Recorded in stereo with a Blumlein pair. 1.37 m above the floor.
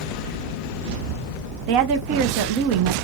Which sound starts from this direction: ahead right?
A woman speaking, at 1.7 s.